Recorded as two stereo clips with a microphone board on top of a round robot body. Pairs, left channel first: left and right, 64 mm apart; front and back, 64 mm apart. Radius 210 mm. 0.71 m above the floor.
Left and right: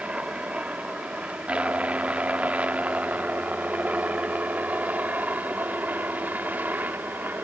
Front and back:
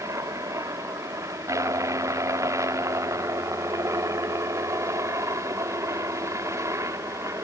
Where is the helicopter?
160° right; by 7.5 s 150° right.